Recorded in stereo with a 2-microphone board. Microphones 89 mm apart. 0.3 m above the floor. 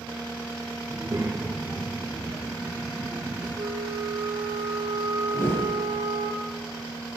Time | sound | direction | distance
0.9 | a child speaking | 45° right (ahead or behind) | 3 m
3.6 | a flute | 80° right | 5 m
5.3 | a whoosh | 35° left (ahead or behind) | 2 m